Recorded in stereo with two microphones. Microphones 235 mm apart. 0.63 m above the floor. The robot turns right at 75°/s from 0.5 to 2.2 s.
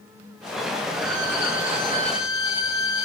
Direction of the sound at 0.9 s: 60° left.